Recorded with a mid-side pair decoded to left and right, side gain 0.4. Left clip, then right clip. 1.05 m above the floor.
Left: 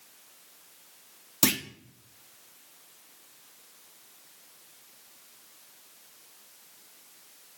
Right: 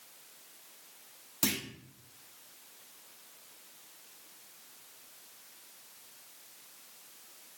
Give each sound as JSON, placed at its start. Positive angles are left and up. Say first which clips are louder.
{"t": 1.4, "sound": "a clunk", "louder": "left 6 dB", "azimuth_deg": 55, "distance_m": 0.9}